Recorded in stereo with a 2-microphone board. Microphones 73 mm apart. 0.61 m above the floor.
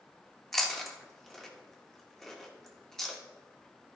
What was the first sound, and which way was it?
Chewing, 5° left (ahead or behind).